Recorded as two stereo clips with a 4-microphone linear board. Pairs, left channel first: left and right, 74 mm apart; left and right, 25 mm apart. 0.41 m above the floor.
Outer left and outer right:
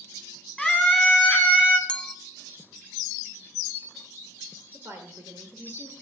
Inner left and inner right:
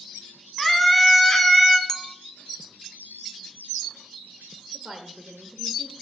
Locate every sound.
0.6 s a scream: 5° right (ahead or behind), 2.5 m; by 1.8 s 20° right (ahead or behind), 2.5 m
1.9 s a clink: 15° left (ahead or behind), 0.6 m
4.7 s a woman speaking: 40° right (ahead or behind), 1.1 m